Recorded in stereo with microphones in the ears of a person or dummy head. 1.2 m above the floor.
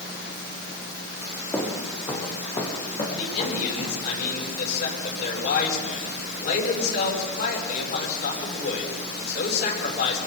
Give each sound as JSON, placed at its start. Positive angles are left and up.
{"t": 1.5, "sound": "footsteps", "side_deg": 15, "distance_m": 3.0}
{"t": 3.1, "sound": "a man speaking", "side_deg": 65, "distance_m": 9.0}